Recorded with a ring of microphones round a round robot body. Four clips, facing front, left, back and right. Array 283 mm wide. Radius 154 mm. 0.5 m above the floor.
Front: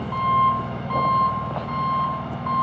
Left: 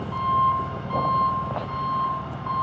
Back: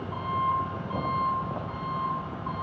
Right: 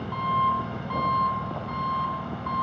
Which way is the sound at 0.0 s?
5° right.